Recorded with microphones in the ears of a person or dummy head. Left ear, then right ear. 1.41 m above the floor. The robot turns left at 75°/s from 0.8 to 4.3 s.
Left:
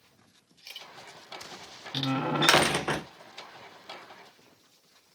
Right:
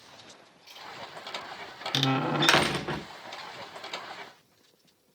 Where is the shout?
No shout in this recording.